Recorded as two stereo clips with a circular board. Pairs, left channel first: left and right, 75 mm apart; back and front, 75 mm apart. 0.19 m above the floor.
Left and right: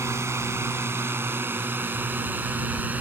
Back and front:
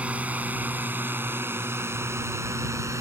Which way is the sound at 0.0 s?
60° right.